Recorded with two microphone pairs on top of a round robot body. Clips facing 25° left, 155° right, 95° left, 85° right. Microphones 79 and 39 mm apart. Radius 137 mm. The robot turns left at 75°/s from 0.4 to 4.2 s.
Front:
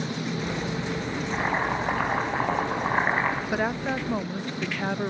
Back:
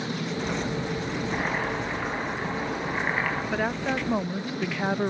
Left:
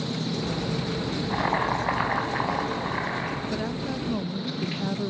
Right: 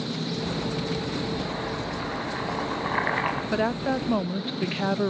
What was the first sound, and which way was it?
Boiling, 110° left.